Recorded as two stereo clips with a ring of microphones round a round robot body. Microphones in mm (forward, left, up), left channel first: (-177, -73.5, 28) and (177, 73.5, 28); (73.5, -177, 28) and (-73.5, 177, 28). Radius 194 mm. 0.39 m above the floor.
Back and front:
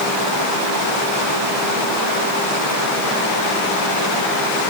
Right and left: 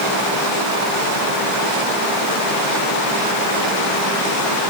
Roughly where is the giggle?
No giggle in this recording.